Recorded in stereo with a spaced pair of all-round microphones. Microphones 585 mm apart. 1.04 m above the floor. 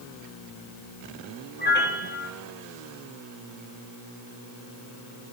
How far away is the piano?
About 1.7 m.